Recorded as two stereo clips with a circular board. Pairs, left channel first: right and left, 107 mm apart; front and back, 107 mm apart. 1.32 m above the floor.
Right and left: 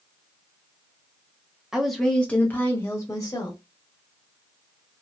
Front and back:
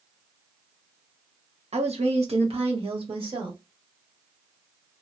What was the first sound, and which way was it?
A woman speaking, 175° left.